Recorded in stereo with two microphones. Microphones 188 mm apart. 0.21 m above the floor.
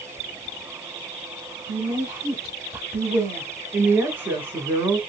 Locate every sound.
1.7 s a woman speaking: 10° right (ahead or behind), 1.1 m
3.7 s a woman speaking: 10° right (ahead or behind), 1.2 m